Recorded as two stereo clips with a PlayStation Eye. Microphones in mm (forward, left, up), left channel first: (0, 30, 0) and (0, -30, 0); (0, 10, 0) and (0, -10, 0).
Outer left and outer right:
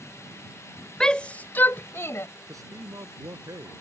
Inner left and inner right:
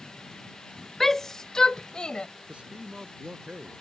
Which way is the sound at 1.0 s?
10° left (ahead or behind).